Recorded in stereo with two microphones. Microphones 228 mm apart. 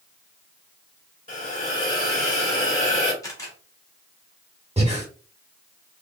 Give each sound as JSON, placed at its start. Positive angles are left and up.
{"t": 1.3, "sound": "a hiss", "side_deg": 35, "distance_m": 1.8}
{"t": 3.2, "sound": "a camera shutter", "side_deg": 15, "distance_m": 1.6}
{"t": 4.8, "sound": "breathing", "side_deg": -30, "distance_m": 1.1}